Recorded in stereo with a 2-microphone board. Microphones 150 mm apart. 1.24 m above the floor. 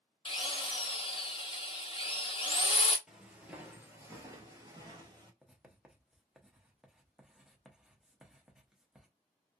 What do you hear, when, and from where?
0.2 s a drill: 35° left (ahead or behind), 0.6 m
3.1 s footsteps: 5° right (ahead or behind), 1.4 m; by 5.3 s 30° right (ahead or behind), 1.6 m
5.4 s writing: 5° right (ahead or behind), 0.7 m